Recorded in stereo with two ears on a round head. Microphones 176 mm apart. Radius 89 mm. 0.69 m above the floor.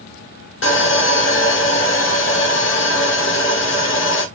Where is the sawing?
65° left (ahead or behind), 1.0 m.